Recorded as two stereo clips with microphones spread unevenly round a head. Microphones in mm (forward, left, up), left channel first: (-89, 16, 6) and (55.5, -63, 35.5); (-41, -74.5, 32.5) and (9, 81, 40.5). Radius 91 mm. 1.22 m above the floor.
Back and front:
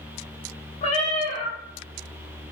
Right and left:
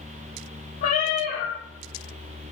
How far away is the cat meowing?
About 0.5 m.